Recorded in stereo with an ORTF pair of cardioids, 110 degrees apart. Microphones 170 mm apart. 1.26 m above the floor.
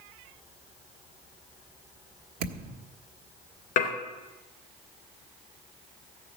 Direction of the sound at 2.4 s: 65° right.